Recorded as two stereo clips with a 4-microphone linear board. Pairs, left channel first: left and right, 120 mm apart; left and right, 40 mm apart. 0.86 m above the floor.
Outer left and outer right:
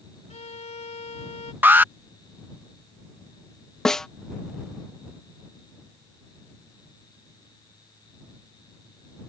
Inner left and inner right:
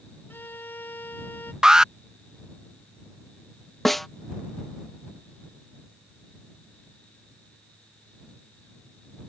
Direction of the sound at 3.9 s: 5° left (ahead or behind).